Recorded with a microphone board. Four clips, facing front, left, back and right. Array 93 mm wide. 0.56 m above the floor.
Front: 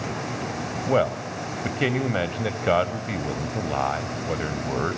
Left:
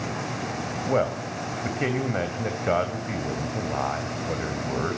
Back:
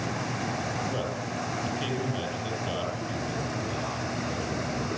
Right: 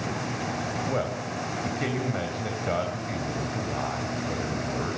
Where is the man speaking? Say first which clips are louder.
Left 8 dB, front 9 dB; 25° left, 3 m.